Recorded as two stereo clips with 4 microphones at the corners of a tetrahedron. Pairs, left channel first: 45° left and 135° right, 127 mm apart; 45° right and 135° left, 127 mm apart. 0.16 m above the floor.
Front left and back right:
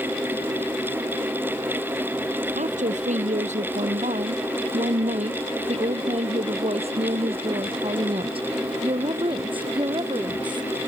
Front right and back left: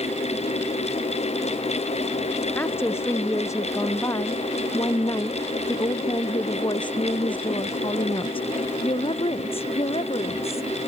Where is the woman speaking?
120° right; by 10.7 s 85° right.